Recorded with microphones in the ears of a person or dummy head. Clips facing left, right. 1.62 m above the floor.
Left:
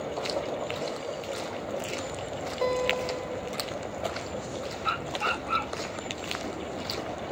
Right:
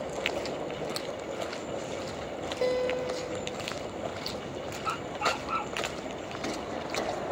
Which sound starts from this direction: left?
A dog barking, at 4.8 s.